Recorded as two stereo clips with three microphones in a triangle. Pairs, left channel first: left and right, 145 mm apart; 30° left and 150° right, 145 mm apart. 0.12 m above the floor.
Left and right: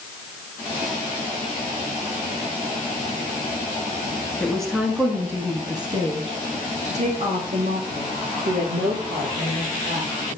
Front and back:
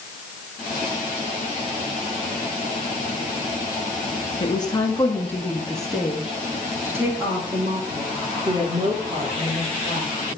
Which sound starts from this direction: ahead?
A woman speaking, at 4.4 s.